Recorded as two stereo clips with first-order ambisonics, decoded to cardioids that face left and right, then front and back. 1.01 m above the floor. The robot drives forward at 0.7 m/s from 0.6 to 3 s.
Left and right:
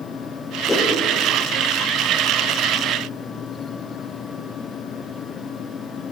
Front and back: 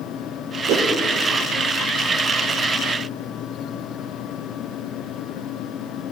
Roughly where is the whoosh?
Behind.